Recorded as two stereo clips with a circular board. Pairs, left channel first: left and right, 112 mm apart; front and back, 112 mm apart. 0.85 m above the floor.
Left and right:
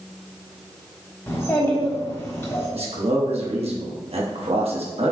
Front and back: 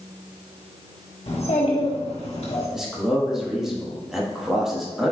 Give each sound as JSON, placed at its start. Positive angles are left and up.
{"t": 1.3, "sound": "a child speaking", "azimuth_deg": 25, "distance_m": 1.4}
{"t": 2.7, "sound": "a man speaking", "azimuth_deg": -95, "distance_m": 1.2}